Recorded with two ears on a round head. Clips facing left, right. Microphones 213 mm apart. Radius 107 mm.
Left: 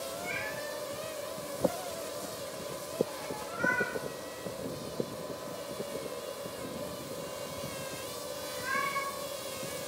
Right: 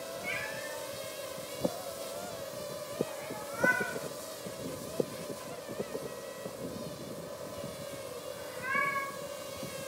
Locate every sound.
0.2 s a cat meowing: 50° right (ahead or behind), 3.5 m